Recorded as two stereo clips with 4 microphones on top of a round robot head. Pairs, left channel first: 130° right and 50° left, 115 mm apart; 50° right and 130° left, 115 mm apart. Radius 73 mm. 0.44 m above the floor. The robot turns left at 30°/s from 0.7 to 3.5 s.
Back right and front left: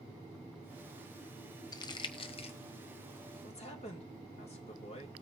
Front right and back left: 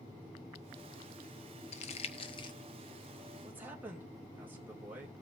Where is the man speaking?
155° right, 2.5 m.